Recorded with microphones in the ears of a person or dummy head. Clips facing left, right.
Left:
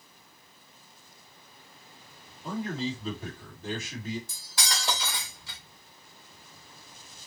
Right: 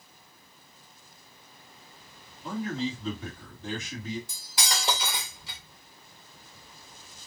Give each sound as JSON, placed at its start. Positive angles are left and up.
{"t": 2.4, "sound": "a man speaking", "side_deg": 0, "distance_m": 2.5}
{"t": 4.3, "sound": "cutlery clinking", "side_deg": -10, "distance_m": 1.1}